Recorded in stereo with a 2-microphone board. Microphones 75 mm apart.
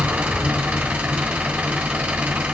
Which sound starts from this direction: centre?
An engine running, at 0.0 s.